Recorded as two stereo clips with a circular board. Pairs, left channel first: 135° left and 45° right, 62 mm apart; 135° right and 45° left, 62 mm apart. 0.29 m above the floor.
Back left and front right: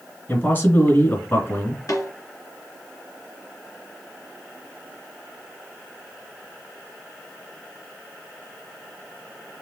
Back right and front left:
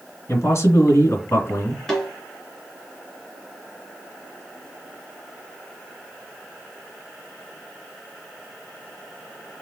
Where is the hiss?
I don't hear a hiss.